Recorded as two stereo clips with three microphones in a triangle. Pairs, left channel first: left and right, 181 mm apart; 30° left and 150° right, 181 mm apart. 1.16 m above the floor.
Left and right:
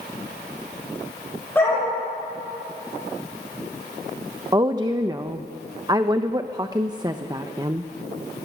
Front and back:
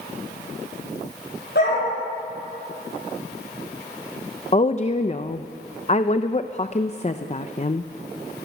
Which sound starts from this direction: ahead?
A dog barking, at 1.6 s.